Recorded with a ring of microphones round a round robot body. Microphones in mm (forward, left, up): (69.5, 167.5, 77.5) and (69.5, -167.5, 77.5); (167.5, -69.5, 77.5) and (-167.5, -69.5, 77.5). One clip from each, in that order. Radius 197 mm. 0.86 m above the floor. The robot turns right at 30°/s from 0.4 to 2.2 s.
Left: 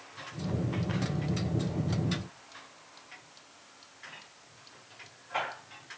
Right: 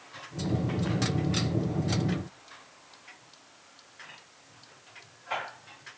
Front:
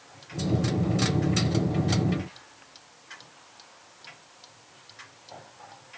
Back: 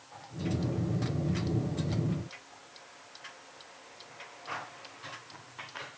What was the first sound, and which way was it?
Only background noise.